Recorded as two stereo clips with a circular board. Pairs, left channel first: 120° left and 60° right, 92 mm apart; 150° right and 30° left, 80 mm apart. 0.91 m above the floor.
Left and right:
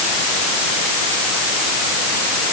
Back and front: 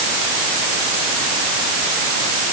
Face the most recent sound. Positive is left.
No sound to turn to.